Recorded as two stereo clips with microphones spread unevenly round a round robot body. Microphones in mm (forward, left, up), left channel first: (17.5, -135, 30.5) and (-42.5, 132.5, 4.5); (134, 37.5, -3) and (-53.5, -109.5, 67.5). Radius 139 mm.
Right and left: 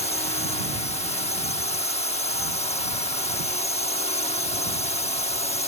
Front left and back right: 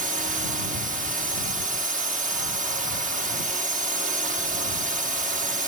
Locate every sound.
0.0 s a drone: 105° right